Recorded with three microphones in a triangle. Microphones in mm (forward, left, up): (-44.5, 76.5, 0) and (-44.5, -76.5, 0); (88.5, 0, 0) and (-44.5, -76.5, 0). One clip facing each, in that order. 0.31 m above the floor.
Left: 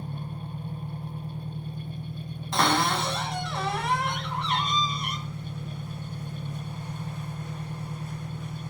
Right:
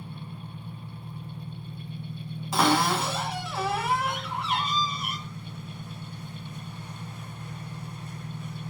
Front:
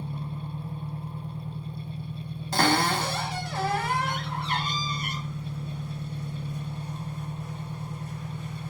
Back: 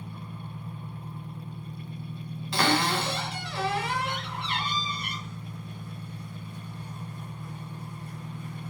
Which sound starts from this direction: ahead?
A cupboard door, at 2.5 s.